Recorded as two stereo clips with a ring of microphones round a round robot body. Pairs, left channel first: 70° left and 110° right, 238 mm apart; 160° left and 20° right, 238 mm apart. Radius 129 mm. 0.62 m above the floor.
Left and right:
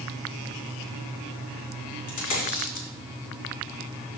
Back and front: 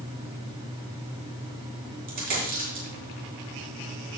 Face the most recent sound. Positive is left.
turn(degrees=35)